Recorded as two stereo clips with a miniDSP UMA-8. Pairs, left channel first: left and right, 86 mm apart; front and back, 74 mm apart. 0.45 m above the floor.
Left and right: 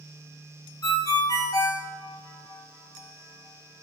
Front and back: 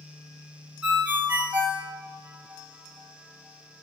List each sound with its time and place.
0.8 s a ringtone: 115° left, 0.6 m